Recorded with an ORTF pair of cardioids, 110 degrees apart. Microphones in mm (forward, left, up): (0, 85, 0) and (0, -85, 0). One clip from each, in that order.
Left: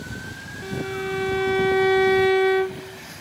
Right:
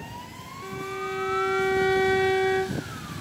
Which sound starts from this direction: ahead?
A violin, at 0.6 s.